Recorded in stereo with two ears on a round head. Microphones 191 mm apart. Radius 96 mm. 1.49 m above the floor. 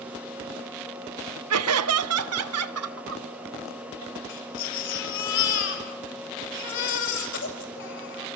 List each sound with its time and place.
1.5 s laughter: 85° right, 1.0 m; by 4.2 s 80° right, 4 m
4.3 s a baby crying: 60° left (ahead or behind), 6.5 m